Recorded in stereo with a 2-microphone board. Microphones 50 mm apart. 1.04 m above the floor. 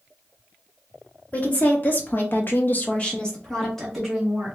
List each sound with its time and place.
1.3 s a woman speaking: 30° left (ahead or behind), 1.6 m; by 4.5 s 5° right (ahead or behind), 2 m